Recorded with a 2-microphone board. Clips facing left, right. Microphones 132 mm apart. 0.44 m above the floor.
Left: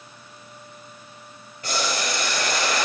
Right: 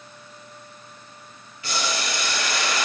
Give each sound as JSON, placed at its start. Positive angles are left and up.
{"t": 1.6, "sound": "boiling", "side_deg": 45, "distance_m": 1.4}